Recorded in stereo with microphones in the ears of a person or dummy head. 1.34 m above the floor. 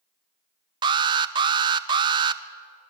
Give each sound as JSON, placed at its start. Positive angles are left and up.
{"t": 0.8, "sound": "an alarm", "side_deg": -20, "distance_m": 0.8}